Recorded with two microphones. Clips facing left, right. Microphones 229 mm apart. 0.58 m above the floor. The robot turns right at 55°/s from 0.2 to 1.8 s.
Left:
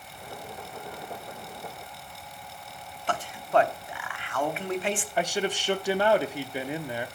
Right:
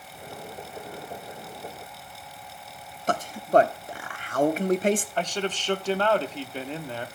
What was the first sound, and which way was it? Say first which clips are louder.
A man speaking: right 4 dB; 40° right (ahead or behind).